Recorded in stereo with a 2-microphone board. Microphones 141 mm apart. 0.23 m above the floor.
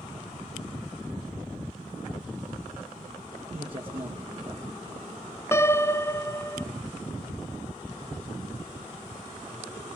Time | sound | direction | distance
3.5 | a man speaking | 40° right (ahead or behind) | 4 m
5.5 | a piano | 20° left (ahead or behind) | 0.5 m